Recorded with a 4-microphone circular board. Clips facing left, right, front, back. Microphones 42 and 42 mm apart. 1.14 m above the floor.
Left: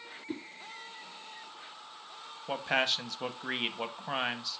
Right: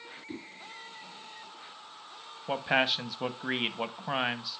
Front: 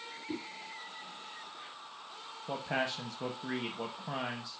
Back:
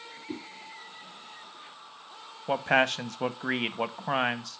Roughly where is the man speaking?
Behind.